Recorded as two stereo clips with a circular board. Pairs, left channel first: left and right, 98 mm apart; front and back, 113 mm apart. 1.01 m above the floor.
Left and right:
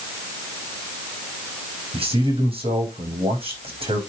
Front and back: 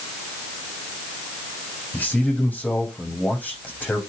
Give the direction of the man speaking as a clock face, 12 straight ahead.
3 o'clock.